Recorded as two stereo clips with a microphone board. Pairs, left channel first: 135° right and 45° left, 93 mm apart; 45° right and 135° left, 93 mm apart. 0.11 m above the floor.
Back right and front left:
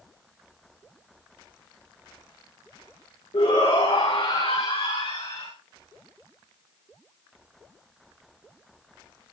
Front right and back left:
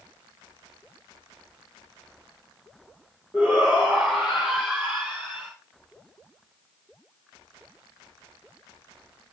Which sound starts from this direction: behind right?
A shout, at 3.3 s.